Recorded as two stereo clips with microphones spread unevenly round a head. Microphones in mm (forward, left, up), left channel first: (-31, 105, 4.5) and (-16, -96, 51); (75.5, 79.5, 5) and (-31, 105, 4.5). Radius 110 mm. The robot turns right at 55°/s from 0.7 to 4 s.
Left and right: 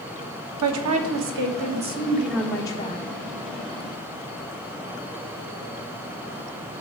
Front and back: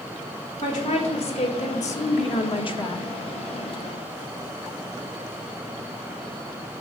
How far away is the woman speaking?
About 1.4 m.